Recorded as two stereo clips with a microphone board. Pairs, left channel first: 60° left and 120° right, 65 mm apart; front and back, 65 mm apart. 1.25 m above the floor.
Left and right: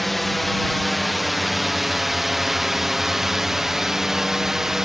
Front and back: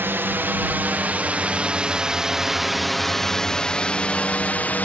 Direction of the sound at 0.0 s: 150° left.